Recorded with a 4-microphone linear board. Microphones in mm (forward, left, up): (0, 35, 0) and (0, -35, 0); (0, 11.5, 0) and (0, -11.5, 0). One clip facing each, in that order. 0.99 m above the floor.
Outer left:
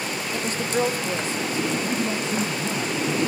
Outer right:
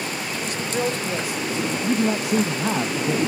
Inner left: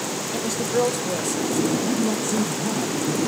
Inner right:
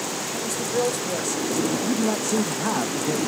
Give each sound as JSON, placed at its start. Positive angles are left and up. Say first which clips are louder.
{"t": 0.3, "sound": "a woman speaking", "louder": "outer left 3 dB, inner left 3 dB", "side_deg": 45, "distance_m": 1.3}
{"t": 1.8, "sound": "a man speaking", "louder": "outer right 4 dB, even", "side_deg": -75, "distance_m": 0.6}